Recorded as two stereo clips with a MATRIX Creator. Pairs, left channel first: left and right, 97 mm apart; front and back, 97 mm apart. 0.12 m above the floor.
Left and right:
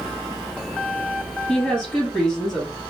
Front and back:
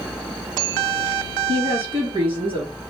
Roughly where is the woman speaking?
Behind.